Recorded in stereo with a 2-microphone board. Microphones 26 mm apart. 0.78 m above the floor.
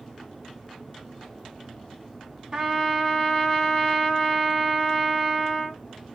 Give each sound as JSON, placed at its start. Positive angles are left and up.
{"t": 2.5, "sound": "a trumpet", "side_deg": -15, "distance_m": 1.3}